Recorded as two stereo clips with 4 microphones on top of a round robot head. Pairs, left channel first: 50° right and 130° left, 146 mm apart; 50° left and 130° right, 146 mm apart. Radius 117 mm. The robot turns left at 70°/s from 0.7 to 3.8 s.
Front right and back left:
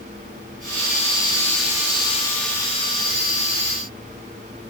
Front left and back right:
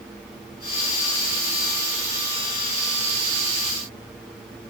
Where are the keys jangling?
No keys jangling in this recording.